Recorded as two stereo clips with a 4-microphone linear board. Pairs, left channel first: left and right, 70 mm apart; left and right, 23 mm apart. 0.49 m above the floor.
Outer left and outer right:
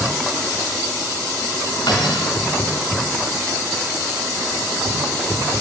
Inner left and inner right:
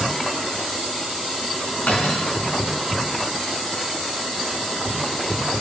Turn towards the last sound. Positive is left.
turn(degrees=85)